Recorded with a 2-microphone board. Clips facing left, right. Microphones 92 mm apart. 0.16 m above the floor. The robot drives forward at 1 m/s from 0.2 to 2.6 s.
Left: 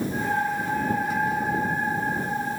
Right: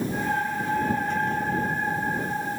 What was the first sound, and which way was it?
Only background noise.